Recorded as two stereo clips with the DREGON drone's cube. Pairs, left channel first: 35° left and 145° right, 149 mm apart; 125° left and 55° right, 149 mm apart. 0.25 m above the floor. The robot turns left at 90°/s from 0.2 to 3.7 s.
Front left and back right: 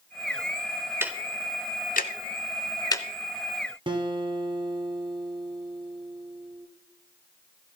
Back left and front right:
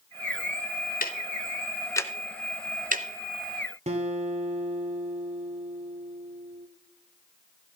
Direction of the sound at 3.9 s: 95° right.